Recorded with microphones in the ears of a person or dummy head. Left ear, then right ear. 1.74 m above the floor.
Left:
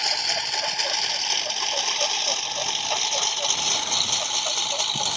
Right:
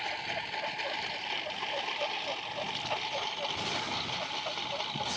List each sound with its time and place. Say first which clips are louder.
0.0 s a lawn mower: left 11 dB; 80° left; by 5.2 s 85° left